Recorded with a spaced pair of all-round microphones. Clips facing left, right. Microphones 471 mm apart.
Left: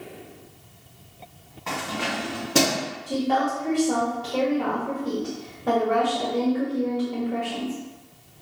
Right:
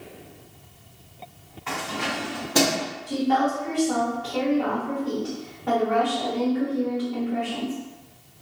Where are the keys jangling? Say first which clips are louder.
Left 1 dB; 60° left (ahead or behind), 1.6 m; by 2.9 s 40° left (ahead or behind), 1.1 m.